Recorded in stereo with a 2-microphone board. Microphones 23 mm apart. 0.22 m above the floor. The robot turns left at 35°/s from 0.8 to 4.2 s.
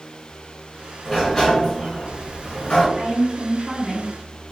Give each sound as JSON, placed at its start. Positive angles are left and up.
{"t": 1.1, "sound": "a sliding door", "azimuth_deg": 165, "distance_m": 1.2}
{"t": 3.0, "sound": "a woman speaking", "azimuth_deg": -50, "distance_m": 1.6}